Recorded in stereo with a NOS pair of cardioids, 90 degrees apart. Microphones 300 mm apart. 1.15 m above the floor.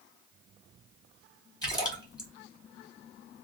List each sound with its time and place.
1.6 s a splash: 15° left, 1.5 m